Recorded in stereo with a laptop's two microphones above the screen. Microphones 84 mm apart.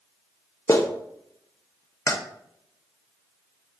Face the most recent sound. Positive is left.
turn(degrees=35)  # may be behind; listen again after turning